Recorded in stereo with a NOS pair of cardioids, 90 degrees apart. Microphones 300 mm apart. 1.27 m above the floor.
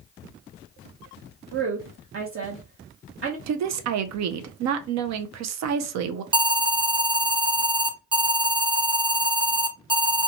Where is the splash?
No splash in this recording.